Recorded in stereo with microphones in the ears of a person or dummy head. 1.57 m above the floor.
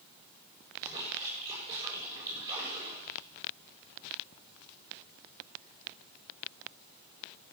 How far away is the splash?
About 6.5 m.